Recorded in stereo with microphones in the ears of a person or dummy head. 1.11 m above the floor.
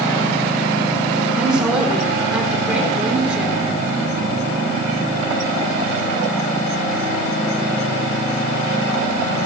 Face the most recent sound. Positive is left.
turn(degrees=-5)  # may be behind; listen again after turning